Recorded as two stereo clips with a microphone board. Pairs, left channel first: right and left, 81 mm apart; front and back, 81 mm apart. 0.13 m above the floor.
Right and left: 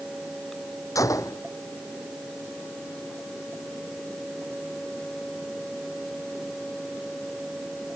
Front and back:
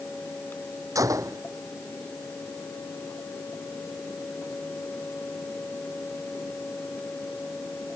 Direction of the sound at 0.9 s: 135° right.